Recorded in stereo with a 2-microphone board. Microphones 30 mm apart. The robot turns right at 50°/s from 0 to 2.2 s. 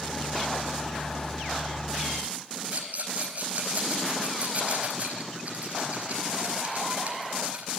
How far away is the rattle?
About 4.5 m.